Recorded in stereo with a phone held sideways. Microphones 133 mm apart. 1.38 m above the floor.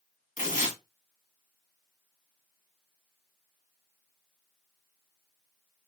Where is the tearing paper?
80° left, 1.8 m.